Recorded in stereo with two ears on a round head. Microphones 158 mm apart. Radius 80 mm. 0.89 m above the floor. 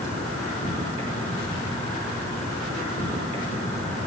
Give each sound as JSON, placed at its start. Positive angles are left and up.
{"t": 0.0, "sound": "an insect", "side_deg": 45, "distance_m": 5.5}